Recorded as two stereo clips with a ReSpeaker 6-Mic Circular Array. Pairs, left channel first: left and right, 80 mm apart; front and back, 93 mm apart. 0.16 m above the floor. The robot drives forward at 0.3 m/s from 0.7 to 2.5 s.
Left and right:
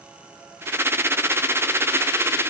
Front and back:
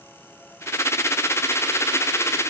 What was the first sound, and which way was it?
Only background noise.